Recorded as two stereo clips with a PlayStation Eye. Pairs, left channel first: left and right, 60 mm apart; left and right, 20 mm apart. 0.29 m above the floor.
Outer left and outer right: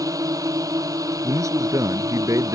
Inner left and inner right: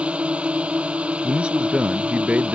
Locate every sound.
0.0 s a drone: 75° right (ahead or behind)
1.2 s a man speaking: 65° right (ahead or behind)